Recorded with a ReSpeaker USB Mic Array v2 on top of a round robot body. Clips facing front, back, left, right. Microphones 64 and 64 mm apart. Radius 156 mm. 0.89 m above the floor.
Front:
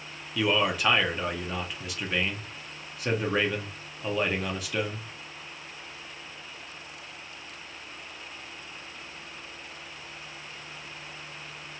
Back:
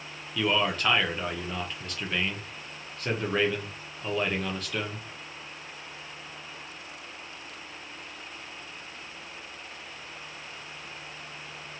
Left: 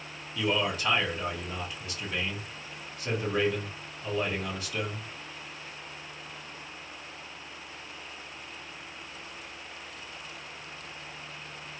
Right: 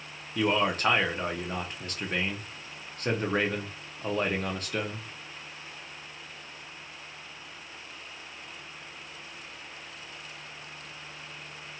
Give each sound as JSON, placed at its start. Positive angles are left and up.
{"t": 0.3, "sound": "a man speaking", "azimuth_deg": -80, "distance_m": 0.8}